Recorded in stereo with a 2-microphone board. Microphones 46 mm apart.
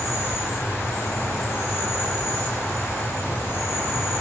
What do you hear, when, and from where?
0.0 s an insect: 50° left (ahead or behind), 5.5 m